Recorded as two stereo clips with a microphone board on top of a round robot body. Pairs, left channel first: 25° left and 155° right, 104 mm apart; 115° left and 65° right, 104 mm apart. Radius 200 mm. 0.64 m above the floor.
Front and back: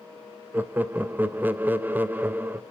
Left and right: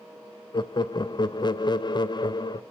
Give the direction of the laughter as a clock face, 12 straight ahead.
7 o'clock.